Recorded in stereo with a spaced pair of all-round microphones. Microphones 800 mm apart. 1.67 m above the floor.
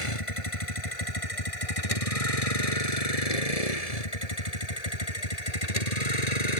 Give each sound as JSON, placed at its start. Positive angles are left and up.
{"t": 0.0, "sound": "a vehicle", "side_deg": 40}